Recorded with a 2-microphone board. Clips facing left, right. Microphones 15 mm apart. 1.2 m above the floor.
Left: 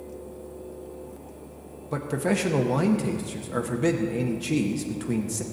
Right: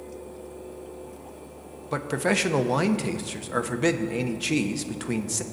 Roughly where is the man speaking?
Right.